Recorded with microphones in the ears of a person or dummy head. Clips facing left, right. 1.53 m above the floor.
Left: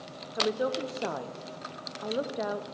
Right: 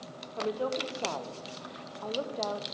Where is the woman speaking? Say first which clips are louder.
Left 3 dB; 20° left (ahead or behind), 0.9 m.